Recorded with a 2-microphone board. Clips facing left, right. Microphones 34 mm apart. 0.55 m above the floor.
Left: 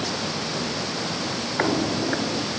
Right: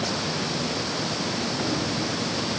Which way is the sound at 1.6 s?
60° left (ahead or behind).